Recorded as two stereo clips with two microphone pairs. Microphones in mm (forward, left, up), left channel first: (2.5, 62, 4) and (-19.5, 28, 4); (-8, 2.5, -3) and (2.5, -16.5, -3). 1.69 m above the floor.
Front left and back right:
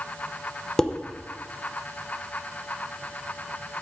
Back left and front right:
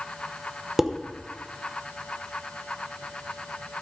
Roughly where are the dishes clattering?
Ahead.